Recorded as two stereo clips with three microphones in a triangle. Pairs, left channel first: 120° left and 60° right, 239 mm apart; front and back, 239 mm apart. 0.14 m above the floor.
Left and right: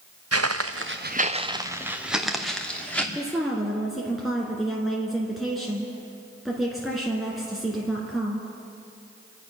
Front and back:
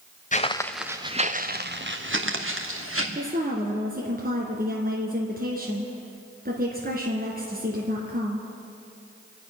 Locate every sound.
0.3 s footsteps: 55° right, 1.0 m; by 3.0 s 155° right, 3 m
3.1 s a woman speaking: 150° right, 2.0 m